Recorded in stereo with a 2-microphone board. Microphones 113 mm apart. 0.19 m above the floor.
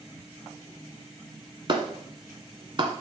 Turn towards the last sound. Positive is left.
turn(degrees=-40)  # may be behind; listen again after turning